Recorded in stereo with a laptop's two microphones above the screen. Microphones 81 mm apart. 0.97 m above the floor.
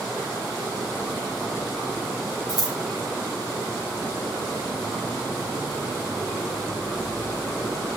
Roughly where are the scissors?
Right.